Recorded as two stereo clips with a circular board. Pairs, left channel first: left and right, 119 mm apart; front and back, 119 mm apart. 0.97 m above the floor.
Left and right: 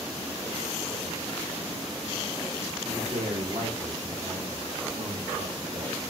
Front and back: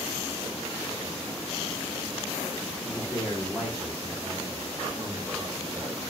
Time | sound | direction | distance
2.8 | a man speaking | 90° right | 3 m